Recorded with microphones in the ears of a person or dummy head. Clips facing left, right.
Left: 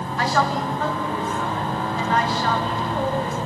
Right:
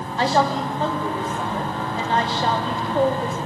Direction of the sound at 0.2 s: 30° right (ahead or behind).